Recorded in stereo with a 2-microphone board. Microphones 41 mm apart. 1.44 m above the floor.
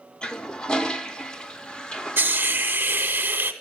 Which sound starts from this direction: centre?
A toilet flushing, at 0.2 s.